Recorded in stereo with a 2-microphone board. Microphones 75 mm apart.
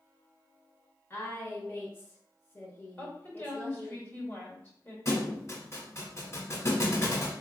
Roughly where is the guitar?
I don't hear a guitar.